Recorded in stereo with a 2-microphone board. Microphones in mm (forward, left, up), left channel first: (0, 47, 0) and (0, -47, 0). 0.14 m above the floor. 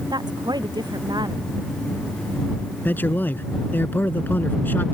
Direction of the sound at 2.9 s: 20° left (ahead or behind).